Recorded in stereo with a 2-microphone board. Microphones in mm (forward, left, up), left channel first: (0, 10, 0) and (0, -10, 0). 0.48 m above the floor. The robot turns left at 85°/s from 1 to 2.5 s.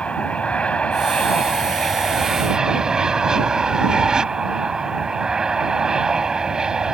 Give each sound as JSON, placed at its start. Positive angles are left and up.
{"t": 0.0, "sound": "an aircraft", "azimuth_deg": 95}